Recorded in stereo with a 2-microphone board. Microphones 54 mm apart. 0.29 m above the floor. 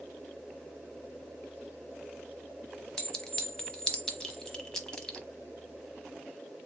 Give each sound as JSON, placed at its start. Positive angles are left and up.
{"t": 3.0, "sound": "a clink", "side_deg": 15, "distance_m": 0.9}